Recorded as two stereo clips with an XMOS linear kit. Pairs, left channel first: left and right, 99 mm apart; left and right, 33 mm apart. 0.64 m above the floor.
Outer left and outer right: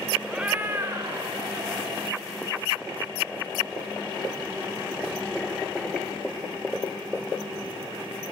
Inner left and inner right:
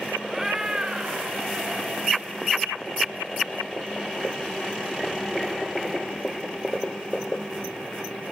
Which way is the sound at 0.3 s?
5° right (ahead or behind).